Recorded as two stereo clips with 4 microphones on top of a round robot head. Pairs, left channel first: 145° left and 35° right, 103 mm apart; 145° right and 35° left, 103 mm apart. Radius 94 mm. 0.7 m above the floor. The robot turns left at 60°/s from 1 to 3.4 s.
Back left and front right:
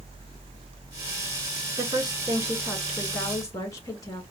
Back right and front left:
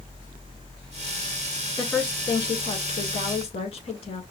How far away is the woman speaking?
About 2.5 m.